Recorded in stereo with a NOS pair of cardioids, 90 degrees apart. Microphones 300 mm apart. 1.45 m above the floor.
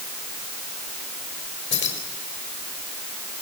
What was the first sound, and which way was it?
Keys jangling, 40° left.